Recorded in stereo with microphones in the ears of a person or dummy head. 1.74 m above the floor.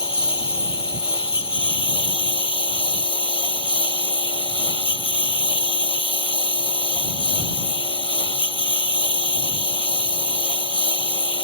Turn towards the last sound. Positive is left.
turn(degrees=25)  # may be behind; listen again after turning